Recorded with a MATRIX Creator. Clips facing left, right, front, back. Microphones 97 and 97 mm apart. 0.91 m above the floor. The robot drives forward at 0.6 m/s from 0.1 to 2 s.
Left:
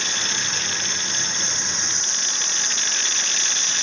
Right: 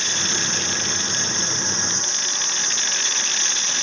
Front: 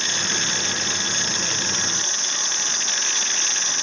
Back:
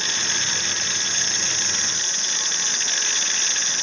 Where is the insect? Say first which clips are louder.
Right 2 dB, front 2 dB; 25° right, 2 m; by 3.8 s 50° right, 1.4 m.